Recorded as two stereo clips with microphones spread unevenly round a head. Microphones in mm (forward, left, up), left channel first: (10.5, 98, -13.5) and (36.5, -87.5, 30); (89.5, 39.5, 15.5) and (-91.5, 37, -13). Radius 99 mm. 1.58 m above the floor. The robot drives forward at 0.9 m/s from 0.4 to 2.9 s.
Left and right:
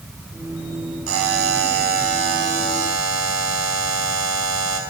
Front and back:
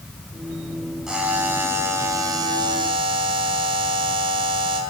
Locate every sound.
1.1 s a buzzer: 90° right, 4.5 m; by 4.8 s 110° right, 4.5 m